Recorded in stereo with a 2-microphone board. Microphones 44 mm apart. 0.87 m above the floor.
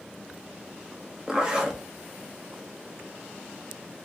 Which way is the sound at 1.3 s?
15° right (ahead or behind).